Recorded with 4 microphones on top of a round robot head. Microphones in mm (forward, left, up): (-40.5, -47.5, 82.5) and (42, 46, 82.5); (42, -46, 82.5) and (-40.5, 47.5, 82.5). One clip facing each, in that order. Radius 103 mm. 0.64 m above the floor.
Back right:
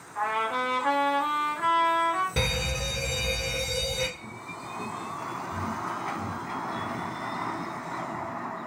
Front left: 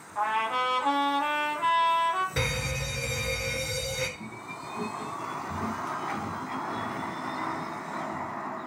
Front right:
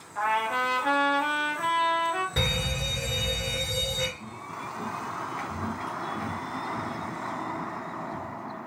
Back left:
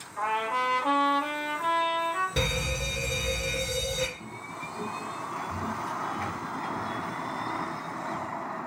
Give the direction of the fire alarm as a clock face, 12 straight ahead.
5 o'clock.